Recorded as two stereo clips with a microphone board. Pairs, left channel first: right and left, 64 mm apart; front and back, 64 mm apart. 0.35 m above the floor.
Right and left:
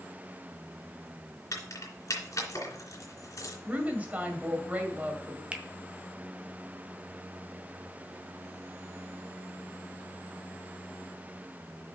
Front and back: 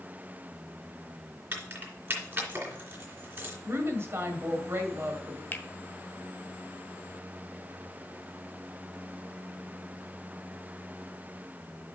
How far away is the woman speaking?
About 1.8 m.